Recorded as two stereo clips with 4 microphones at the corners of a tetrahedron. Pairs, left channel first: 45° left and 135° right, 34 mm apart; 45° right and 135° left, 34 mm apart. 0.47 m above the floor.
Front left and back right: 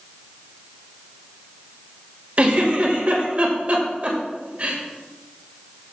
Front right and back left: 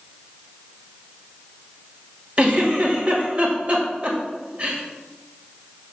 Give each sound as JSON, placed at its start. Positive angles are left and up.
{"t": 2.4, "sound": "a giggle", "azimuth_deg": 175, "distance_m": 2.0}